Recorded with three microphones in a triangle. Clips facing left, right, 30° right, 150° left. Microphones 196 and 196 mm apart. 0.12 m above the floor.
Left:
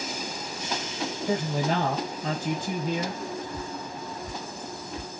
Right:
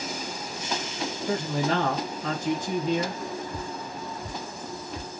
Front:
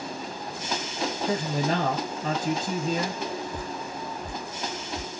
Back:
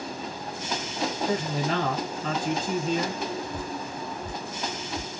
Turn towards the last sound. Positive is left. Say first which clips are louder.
# even, back 1 dB
turn(degrees=-125)